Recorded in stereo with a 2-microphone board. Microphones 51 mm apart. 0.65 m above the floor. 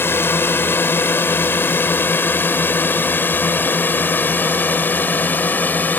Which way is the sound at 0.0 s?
50° left (ahead or behind).